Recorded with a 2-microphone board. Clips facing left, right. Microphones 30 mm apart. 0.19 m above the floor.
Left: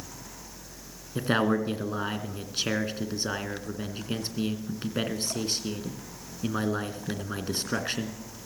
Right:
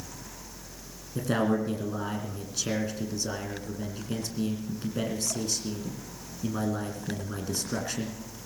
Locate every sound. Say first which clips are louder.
1.1 s a man speaking: left 2 dB; 40° left (ahead or behind), 2.0 m